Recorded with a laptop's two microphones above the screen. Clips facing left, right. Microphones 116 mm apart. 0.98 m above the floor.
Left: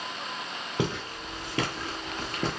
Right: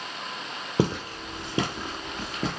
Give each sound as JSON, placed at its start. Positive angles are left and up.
{"t": 0.8, "sound": "footsteps", "side_deg": -35, "distance_m": 1.1}